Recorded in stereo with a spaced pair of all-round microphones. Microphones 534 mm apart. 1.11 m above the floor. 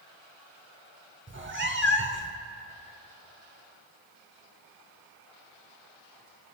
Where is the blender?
I don't hear a blender.